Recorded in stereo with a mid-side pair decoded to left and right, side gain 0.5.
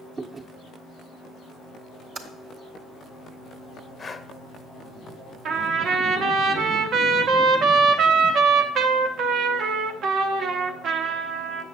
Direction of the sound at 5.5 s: 60° right.